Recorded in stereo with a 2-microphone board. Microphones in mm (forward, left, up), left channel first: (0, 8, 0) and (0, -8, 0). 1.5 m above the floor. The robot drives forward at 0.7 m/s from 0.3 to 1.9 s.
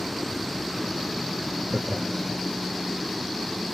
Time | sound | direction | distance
1.7 | laughter | 45° right (ahead or behind) | 0.7 m